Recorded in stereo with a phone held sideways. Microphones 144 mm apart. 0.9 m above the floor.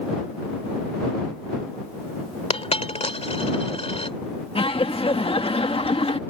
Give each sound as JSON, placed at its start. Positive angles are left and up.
{"t": 2.5, "sound": "a dropped coin", "side_deg": 45}
{"t": 4.5, "sound": "laughter", "side_deg": 40}